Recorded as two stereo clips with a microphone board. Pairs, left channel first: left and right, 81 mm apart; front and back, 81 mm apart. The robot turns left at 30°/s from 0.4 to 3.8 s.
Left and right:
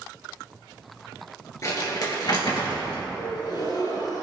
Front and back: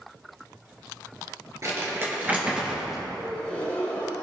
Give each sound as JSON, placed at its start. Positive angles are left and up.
{"t": 1.6, "sound": "crumpling", "azimuth_deg": 135, "distance_m": 3.0}
{"t": 3.2, "sound": "a gasp", "azimuth_deg": 85, "distance_m": 3.5}